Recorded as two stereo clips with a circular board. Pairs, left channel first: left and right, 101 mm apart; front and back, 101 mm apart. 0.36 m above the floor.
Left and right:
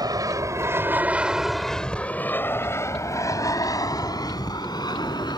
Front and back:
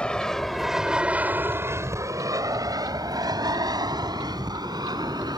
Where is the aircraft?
75° right; by 5.4 s 135° left.